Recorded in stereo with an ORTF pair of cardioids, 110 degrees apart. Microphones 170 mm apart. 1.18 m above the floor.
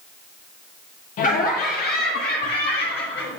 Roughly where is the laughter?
Ahead left.